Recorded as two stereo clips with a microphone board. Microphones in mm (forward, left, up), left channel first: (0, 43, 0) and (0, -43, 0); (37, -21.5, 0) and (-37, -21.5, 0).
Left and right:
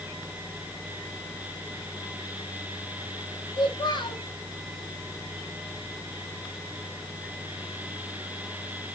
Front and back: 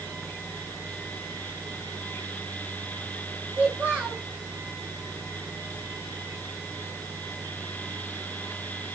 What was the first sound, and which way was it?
A child speaking, 100° left.